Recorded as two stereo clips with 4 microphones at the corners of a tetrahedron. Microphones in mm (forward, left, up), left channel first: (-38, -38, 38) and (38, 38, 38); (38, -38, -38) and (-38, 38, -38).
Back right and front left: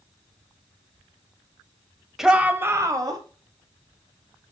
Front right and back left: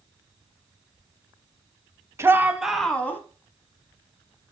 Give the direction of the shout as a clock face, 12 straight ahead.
8 o'clock.